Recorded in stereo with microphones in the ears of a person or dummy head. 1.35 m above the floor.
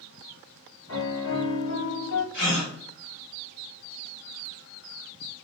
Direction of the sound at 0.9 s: 70° left (ahead or behind).